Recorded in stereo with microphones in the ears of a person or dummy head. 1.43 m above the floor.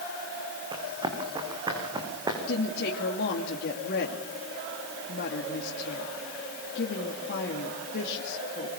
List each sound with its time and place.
0.7 s running footsteps: 20° right (ahead or behind), 6 m; by 2.4 s 15° right (ahead or behind), 6.5 m
2.5 s a woman speaking: 55° left (ahead or behind), 2.5 m